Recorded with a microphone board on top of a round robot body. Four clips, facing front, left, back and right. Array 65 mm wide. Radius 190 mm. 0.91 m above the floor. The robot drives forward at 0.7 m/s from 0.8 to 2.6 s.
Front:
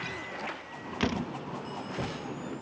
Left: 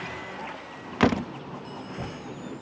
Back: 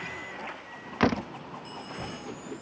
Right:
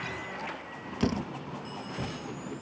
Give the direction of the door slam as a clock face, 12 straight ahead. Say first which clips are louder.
Left 7 dB, back 6 dB; 8 o'clock.